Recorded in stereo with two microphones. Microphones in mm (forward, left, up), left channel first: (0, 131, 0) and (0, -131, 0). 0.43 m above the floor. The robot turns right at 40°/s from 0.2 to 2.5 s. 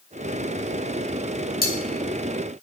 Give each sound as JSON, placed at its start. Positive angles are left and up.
{"t": 1.6, "sound": "cutlery clinking", "side_deg": 35, "distance_m": 0.8}